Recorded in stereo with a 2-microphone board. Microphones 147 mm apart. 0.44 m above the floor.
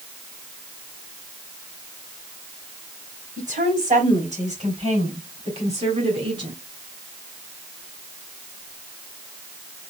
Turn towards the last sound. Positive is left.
turn(degrees=-40)  # may be behind; listen again after turning